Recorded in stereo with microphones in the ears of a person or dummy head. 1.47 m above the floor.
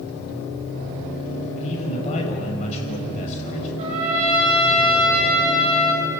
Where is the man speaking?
35° left (ahead or behind), 6.5 m.